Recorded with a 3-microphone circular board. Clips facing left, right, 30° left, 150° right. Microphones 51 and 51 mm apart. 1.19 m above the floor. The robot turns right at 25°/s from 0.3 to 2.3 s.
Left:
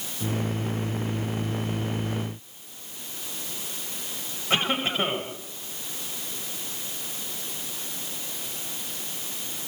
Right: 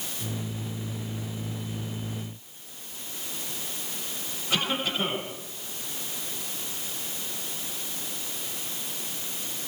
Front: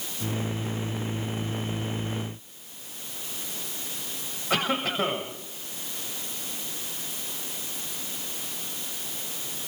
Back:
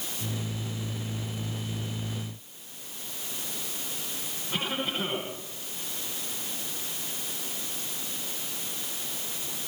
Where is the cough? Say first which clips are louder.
Left 3 dB, front 5 dB; 30° left, 7 m.